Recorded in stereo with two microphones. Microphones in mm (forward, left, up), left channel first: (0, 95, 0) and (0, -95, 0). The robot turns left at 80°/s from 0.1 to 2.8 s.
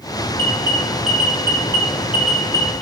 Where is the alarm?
15° left (ahead or behind), 5.5 m; by 2.8 s centre (ahead or behind), 5.5 m.